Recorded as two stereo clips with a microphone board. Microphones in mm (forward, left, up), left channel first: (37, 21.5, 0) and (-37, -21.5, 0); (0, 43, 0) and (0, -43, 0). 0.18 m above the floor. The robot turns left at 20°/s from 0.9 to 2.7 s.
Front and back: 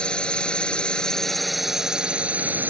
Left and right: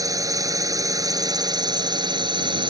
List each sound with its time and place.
0.0 s a drone: 50° right; by 2.7 s 85° right